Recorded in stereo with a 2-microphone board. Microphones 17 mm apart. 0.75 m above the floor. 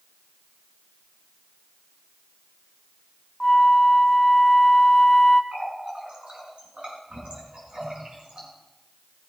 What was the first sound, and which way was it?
A flute, 15° left (ahead or behind).